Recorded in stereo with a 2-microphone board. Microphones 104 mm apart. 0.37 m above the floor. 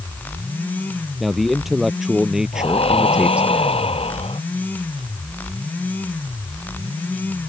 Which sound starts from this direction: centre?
A man speaking, at 1.2 s.